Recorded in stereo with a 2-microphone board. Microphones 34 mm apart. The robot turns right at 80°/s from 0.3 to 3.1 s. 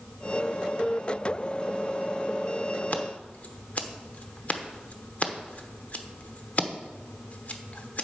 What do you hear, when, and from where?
2.9 s scissors: 50° left (ahead or behind), 0.9 m